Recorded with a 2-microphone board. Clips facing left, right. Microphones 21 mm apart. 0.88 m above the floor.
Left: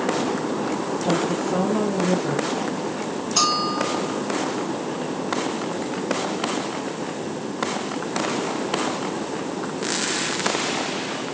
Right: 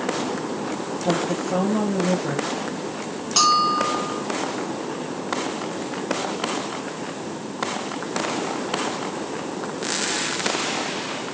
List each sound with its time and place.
1.1 s a woman speaking: 25° right (ahead or behind), 4.5 m
3.4 s a bell: 40° right (ahead or behind), 6 m